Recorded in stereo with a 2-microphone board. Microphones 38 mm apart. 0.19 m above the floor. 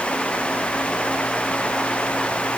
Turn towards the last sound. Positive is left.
No sound to turn to.